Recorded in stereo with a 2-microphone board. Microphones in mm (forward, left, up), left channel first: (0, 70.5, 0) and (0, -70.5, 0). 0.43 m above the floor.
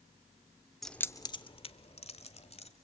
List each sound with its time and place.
0.8 s keys jangling: centre (ahead or behind), 0.6 m; by 2.7 s 50° left (ahead or behind), 1.7 m